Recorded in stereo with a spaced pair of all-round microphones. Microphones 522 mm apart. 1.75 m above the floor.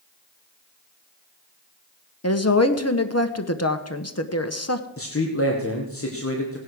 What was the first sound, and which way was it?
A woman speaking, 25° left (ahead or behind).